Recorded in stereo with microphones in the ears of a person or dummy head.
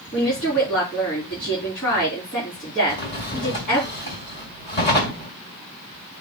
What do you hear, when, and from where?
0.1 s a woman speaking: 25° left (ahead or behind), 4 m
2.9 s a drawer: 30° left (ahead or behind), 2 m